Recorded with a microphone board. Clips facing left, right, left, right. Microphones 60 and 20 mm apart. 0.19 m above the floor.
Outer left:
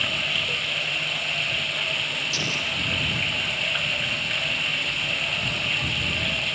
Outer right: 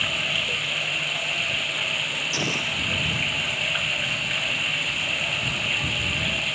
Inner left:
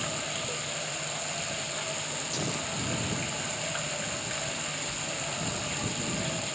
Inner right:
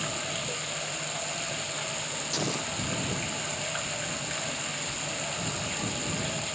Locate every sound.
0.0 s running water: 5° right (ahead or behind)
2.3 s an explosion: 25° right (ahead or behind)